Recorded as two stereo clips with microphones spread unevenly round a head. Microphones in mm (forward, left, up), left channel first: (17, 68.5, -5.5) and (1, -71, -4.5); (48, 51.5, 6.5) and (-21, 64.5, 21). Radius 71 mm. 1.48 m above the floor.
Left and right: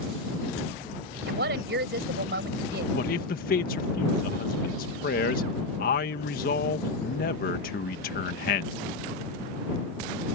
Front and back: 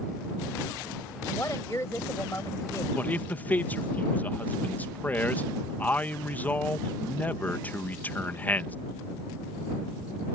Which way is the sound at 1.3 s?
85° right.